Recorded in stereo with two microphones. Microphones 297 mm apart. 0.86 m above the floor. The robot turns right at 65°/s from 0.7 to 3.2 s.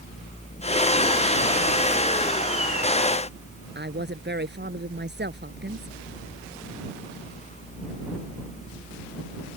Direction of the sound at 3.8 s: 35° right (ahead or behind).